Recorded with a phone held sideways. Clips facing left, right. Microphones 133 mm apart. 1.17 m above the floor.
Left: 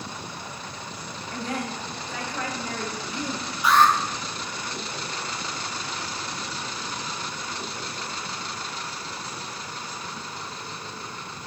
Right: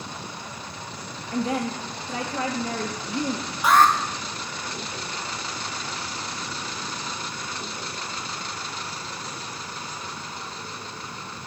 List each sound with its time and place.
1.3 s a woman speaking: 20° right (ahead or behind), 1.3 m
3.6 s an alarm: 45° right (ahead or behind), 1.2 m